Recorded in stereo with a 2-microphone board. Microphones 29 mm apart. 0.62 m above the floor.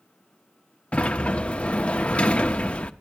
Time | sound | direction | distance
0.9 | a sliding door | 45° left (ahead or behind) | 0.8 m